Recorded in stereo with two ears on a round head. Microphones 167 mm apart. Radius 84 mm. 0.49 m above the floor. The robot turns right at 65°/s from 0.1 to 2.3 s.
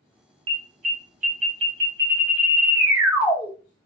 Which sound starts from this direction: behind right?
An alarm, at 0.5 s.